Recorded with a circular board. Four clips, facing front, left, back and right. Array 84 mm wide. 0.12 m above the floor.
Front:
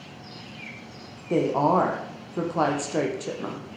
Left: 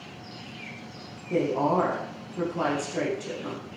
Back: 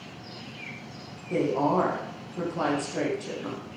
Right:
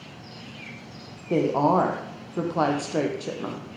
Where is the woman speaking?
50° right, 3.5 m.